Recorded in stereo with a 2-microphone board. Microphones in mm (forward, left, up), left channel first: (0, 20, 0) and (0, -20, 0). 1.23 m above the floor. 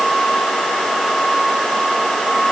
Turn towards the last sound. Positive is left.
No sound to turn to.